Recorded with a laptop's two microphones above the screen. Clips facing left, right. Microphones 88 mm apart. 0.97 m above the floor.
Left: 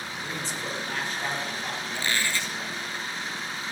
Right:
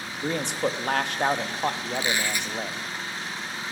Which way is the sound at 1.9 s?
15° right (ahead or behind).